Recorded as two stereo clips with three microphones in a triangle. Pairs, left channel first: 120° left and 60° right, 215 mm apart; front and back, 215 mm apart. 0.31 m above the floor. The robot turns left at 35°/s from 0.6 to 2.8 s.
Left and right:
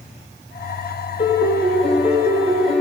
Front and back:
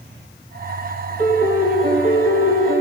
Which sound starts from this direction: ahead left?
A piano, at 1.2 s.